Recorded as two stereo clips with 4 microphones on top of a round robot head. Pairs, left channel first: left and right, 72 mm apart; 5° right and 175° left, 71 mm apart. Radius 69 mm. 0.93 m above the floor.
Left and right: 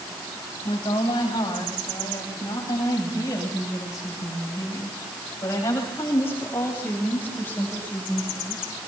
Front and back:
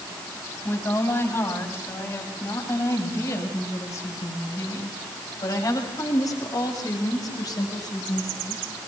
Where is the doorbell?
No doorbell in this recording.